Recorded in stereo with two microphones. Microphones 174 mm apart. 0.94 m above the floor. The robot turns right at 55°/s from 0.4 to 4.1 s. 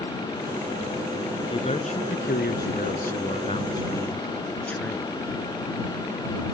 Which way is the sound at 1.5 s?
30° left.